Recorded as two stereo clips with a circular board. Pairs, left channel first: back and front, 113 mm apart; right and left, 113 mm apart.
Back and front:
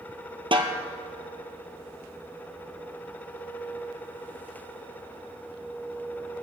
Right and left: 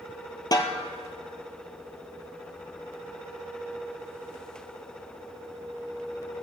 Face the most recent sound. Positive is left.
turn(degrees=-35)